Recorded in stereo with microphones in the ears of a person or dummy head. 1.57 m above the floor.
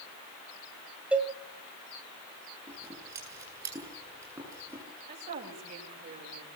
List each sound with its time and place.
1.1 s a cowbell: 15° right (ahead or behind), 1.8 m
2.7 s scissors: 20° right (ahead or behind), 8.5 m
5.1 s a woman speaking: 50° right (ahead or behind), 6.5 m